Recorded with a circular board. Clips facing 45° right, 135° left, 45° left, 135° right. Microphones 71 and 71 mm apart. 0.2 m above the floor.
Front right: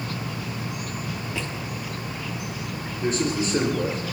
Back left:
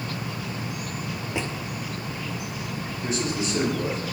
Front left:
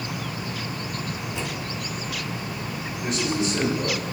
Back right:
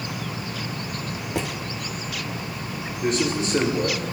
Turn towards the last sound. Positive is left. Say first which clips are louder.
# front right 4 dB, back right 2 dB
turn(degrees=-90)